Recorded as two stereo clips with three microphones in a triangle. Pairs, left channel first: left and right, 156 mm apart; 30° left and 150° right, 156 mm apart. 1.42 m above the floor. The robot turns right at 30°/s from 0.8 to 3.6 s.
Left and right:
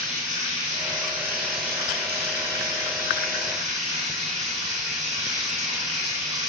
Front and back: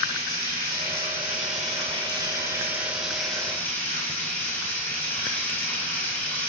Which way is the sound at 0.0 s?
130° right.